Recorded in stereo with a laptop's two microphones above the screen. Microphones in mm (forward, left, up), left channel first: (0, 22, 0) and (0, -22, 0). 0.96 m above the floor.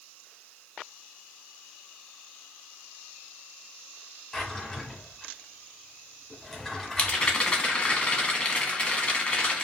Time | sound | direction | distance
4.3 | a drawer | 5° left (ahead or behind) | 0.9 m
7.0 | a rattle | 25° left (ahead or behind) | 1.3 m